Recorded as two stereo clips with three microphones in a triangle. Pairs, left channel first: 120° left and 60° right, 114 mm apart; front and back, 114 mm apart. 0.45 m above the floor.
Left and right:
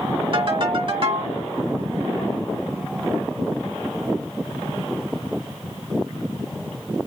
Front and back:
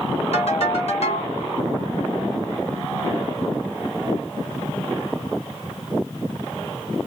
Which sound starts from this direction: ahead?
A ringtone, at 0.3 s.